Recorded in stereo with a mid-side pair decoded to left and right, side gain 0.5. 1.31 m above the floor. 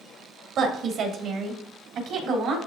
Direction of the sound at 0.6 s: 65° right.